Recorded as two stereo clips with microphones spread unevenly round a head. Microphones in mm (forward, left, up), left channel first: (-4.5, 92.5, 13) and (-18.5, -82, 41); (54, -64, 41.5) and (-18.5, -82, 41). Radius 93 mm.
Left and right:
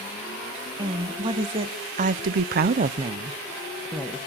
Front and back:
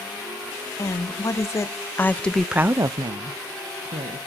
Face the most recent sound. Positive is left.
turn(degrees=175)